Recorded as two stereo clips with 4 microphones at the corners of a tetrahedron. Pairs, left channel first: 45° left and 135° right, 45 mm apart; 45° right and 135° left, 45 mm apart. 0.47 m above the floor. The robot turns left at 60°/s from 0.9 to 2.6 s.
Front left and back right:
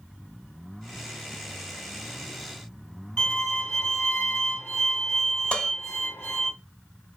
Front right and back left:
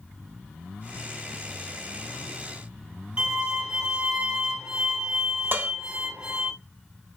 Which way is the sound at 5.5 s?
105° left.